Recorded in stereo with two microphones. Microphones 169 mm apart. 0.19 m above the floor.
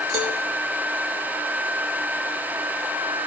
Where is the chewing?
I don't hear chewing.